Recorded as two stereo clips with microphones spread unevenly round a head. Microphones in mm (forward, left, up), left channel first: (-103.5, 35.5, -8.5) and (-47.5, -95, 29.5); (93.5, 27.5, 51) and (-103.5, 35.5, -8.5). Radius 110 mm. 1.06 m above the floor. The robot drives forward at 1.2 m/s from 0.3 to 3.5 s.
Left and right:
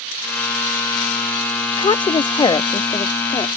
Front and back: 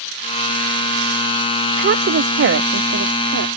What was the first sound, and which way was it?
A woman speaking, 155° left.